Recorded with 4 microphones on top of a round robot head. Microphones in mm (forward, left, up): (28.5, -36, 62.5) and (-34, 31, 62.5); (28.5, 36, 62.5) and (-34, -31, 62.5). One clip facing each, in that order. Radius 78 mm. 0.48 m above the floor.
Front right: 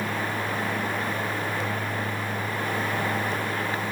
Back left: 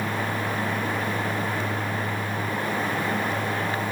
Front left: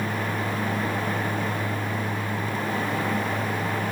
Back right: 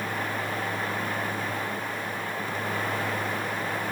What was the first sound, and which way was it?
Only background noise.